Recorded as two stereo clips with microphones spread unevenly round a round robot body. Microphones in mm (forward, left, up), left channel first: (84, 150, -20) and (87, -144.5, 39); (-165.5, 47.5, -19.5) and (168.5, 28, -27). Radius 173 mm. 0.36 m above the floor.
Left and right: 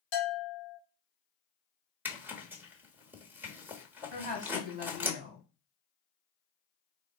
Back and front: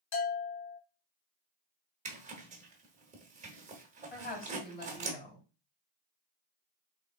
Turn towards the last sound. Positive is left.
turn(degrees=-175)